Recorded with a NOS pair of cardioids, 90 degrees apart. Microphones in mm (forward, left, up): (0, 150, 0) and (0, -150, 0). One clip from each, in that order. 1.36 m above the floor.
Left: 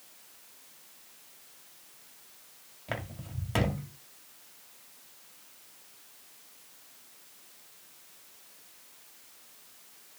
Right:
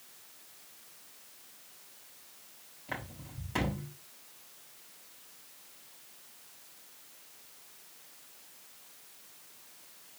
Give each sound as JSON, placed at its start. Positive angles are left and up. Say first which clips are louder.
{"t": 2.9, "sound": "footsteps", "louder": "left 3 dB", "azimuth_deg": 55, "distance_m": 5.5}